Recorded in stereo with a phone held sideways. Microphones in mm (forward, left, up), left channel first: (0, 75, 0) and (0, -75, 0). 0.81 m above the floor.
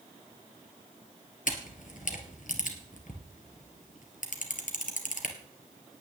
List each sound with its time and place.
1.5 s a camera shutter: 60° left (ahead or behind), 2.5 m